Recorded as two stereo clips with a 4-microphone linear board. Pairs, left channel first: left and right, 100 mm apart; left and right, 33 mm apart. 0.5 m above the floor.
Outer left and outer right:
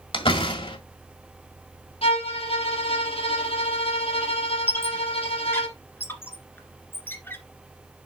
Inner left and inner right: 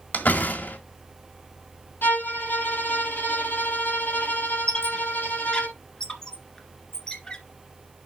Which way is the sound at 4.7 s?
25° left (ahead or behind).